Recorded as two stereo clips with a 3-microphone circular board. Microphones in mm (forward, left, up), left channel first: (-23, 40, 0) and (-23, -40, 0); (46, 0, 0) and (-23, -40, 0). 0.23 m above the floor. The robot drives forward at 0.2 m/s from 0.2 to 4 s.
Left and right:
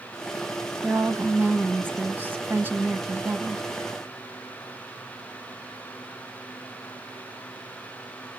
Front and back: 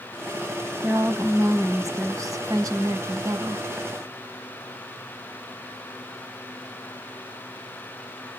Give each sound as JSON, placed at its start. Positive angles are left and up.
{"t": 0.8, "sound": "a woman speaking", "azimuth_deg": -130, "distance_m": 1.4}